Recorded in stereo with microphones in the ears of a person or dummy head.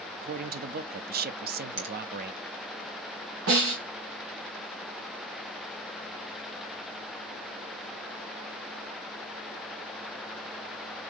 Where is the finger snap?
65° right (ahead or behind), 1.5 m.